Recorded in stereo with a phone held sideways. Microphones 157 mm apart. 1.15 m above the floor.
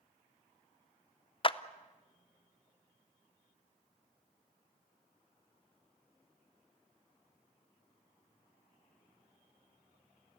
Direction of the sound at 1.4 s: 35° left (ahead or behind).